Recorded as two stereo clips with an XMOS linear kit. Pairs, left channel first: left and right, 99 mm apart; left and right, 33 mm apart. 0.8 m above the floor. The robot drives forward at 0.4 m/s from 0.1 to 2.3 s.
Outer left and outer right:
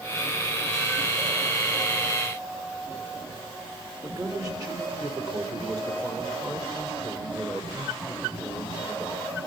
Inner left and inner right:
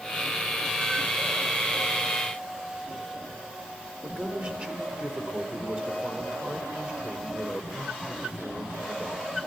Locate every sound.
4.0 s a man speaking: 40° right (ahead or behind), 4 m